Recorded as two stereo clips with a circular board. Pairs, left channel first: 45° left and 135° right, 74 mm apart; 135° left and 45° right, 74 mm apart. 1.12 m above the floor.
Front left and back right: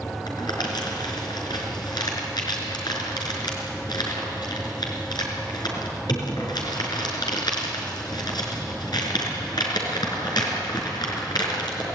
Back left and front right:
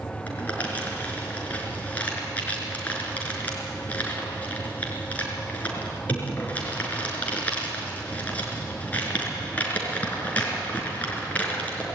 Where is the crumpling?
65° left, 5 m.